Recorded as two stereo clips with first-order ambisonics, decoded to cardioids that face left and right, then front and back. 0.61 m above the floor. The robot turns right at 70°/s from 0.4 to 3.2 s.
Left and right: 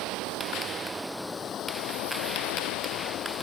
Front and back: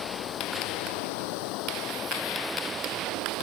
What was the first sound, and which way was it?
Running water, 55° right.